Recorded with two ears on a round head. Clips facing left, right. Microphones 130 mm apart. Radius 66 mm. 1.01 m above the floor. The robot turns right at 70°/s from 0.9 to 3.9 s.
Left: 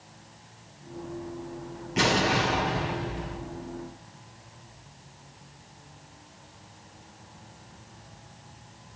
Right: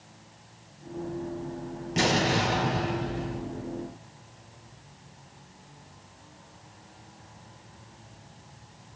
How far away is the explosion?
About 3.5 m.